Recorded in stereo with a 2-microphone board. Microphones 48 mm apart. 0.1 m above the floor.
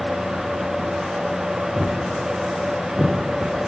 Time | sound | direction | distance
1.8 | footsteps | centre (ahead or behind) | 0.9 m